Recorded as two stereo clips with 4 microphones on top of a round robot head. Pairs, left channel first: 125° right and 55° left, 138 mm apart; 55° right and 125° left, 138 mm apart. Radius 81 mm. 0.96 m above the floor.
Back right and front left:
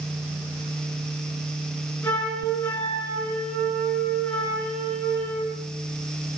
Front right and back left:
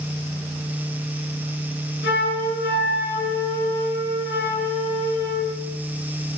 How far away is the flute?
About 7.5 m.